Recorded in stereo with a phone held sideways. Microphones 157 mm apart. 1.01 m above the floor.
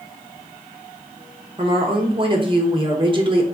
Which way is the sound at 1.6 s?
35° right (ahead or behind).